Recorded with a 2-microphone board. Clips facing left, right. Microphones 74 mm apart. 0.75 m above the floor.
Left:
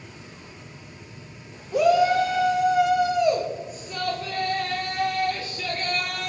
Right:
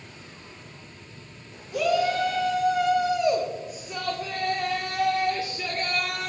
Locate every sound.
1.7 s a shout: 30° left (ahead or behind), 1.2 m; by 6.3 s 25° right (ahead or behind), 3 m